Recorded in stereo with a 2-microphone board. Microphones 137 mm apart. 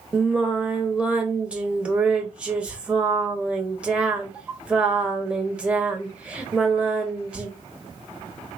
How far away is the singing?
About 0.6 m.